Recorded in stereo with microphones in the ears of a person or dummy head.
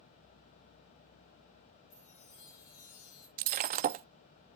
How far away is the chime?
About 8 m.